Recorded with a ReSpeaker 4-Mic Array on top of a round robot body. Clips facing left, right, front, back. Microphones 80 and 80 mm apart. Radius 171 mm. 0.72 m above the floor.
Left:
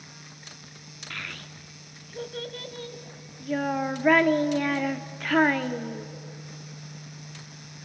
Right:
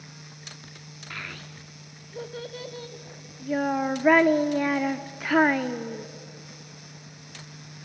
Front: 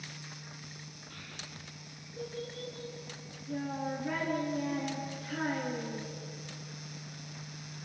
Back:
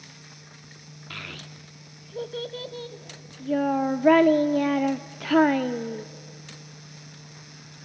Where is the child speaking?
170° right, 0.8 m.